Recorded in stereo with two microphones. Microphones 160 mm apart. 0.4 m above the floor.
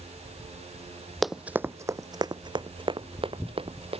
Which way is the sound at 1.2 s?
Centre (ahead or behind).